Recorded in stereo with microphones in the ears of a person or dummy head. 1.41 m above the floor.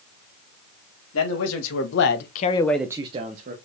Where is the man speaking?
90° left, 1.6 m; by 3.5 s 45° right (ahead or behind), 1.1 m.